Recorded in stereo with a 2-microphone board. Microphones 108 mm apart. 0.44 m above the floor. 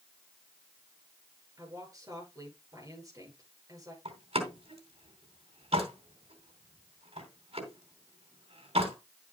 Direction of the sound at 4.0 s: 75° right (ahead or behind).